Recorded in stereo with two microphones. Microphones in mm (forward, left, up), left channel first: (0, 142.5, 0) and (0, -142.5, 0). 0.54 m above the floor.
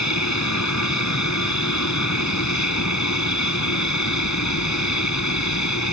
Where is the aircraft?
75° left (ahead or behind).